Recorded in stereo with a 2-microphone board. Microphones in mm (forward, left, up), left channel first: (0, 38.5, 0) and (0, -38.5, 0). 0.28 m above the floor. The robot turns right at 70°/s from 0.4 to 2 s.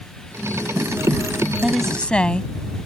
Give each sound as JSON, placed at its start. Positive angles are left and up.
{"t": 1.6, "sound": "a woman speaking", "side_deg": -10}